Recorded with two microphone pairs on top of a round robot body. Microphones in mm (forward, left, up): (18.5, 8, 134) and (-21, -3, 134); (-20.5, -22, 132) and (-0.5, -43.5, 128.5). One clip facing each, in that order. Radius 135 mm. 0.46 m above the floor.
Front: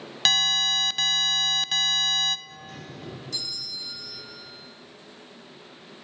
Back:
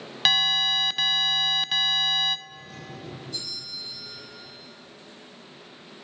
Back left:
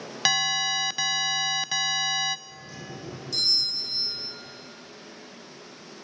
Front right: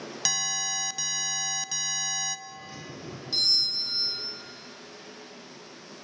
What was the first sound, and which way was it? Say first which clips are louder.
An alarm: back 1 dB, back left 7 dB; 130° left.